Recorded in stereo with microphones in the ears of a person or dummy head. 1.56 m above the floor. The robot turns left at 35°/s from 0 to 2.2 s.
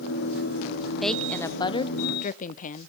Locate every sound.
1.0 s a woman speaking: straight behind, 0.6 m; by 2.9 s 140° left, 0.6 m